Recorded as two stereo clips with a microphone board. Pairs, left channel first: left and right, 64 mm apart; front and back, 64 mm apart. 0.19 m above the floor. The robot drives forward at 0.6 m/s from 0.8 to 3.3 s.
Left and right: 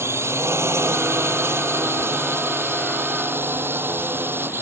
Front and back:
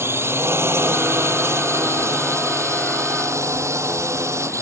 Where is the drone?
135° right; by 4.6 s 140° right.